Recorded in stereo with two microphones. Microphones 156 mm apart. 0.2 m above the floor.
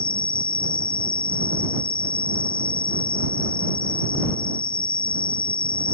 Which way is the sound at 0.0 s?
70° left (ahead or behind).